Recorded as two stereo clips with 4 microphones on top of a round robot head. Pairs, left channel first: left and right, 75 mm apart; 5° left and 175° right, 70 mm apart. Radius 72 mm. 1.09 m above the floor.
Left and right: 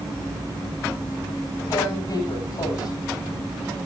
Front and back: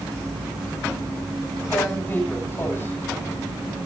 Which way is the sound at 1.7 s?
60° left.